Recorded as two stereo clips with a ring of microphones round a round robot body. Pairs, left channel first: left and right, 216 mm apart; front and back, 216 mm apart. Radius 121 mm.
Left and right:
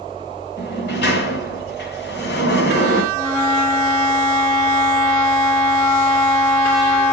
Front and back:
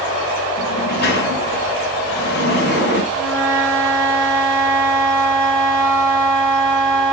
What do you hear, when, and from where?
0.6 s a sliding door: 45° left, 2.5 m
3.1 s a flute: 70° left, 8.5 m